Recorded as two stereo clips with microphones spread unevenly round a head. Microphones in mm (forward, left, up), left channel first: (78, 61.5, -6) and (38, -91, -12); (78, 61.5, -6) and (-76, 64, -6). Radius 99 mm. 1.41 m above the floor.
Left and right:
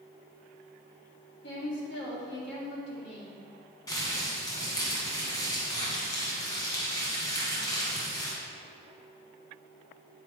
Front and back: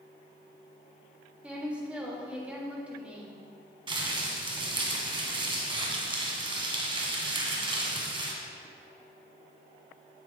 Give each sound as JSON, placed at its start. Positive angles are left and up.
{"t": 1.4, "sound": "a woman speaking", "azimuth_deg": 100, "distance_m": 2.5}
{"t": 3.9, "sound": "crumpling", "azimuth_deg": 135, "distance_m": 1.9}